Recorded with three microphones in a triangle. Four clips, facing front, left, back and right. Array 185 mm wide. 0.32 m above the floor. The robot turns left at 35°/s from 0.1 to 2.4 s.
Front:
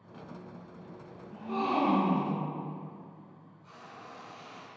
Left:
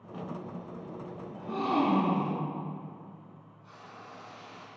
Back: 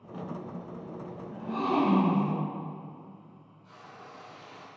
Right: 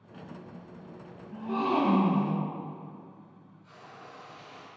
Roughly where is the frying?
Ahead left.